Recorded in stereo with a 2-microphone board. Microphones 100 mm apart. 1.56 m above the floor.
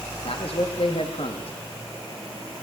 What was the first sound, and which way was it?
A man speaking, 70° left (ahead or behind).